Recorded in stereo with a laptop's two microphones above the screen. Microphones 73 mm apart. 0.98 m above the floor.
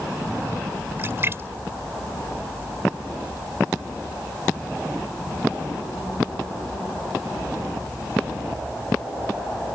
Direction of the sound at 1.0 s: 35° right (ahead or behind).